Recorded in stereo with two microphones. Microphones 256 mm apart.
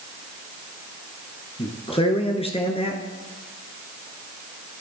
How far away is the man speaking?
About 1.4 m.